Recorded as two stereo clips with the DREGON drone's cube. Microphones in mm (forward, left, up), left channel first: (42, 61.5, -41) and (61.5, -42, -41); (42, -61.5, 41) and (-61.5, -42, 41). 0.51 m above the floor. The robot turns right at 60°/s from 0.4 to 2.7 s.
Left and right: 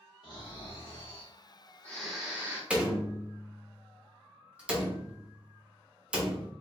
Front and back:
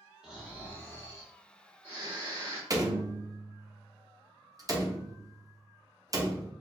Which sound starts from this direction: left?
Snoring, at 0.2 s.